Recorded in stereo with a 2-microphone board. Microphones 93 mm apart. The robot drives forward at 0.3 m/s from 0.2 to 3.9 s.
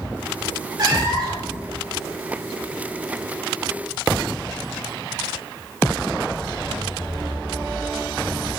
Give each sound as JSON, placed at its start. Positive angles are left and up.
{"t": 0.8, "sound": "a cat meowing", "side_deg": -45, "distance_m": 1.2}